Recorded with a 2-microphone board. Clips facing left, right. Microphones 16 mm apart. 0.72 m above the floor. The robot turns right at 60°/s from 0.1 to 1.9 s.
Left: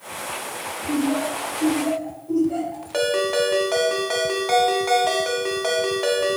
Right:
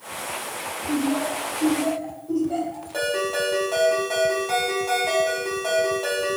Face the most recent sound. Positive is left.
turn(degrees=35)  # may be behind; listen again after turning